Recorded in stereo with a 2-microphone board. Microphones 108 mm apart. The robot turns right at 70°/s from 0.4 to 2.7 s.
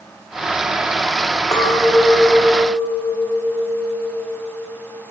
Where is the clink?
5° left, 2.0 m; by 4.7 s 90° left, 2.0 m.